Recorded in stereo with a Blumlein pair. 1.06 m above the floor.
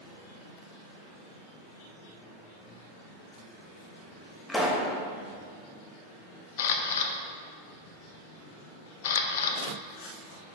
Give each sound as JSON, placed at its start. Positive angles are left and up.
{"t": 4.5, "sound": "a pop", "azimuth_deg": 10, "distance_m": 1.0}
{"t": 6.6, "sound": "a camera shutter", "azimuth_deg": 55, "distance_m": 0.7}